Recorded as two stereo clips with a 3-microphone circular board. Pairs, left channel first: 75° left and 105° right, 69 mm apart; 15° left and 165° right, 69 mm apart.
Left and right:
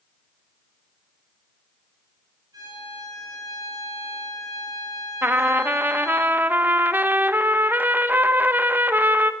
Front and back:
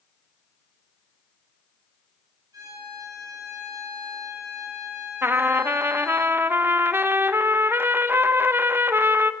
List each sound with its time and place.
2.5 s a violin: 135° right, 7 m
5.2 s a trumpet: 145° right, 0.6 m